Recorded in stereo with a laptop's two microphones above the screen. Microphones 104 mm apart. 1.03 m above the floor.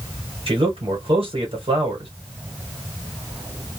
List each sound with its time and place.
0.5 s a man speaking: 60° right (ahead or behind), 1.2 m